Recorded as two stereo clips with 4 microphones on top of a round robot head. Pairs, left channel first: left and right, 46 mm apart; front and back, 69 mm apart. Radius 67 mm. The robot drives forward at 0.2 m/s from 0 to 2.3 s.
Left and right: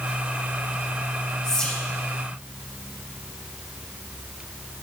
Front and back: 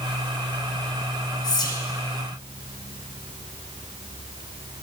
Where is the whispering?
25° left, 1.1 m; by 1.8 s 30° left, 1.1 m.